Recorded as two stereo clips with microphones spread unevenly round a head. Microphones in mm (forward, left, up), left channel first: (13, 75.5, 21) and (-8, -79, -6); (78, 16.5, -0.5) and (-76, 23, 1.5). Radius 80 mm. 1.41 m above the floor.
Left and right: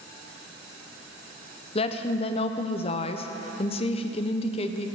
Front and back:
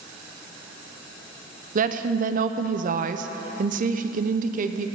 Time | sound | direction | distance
1.8 | a woman speaking | 140° left | 0.6 m